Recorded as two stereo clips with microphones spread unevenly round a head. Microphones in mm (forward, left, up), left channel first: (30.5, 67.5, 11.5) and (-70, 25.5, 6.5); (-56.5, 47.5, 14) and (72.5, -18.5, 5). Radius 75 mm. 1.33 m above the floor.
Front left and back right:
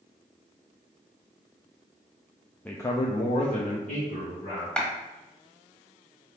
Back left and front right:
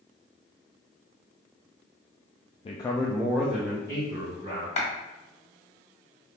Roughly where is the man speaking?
Left.